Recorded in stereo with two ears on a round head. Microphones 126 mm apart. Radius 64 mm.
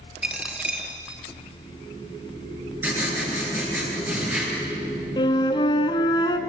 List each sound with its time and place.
0.2 s a dropped coin: 10° right (ahead or behind), 2.0 m
2.8 s writing: 15° right (ahead or behind), 7.5 m
5.2 s a flute: 30° left (ahead or behind), 1.7 m